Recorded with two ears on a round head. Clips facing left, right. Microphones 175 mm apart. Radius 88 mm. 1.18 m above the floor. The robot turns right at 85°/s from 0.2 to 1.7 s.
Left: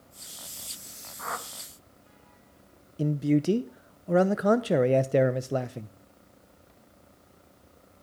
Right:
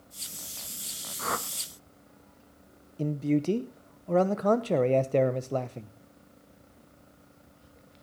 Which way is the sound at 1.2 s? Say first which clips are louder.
Right 4 dB; 40° right (ahead or behind).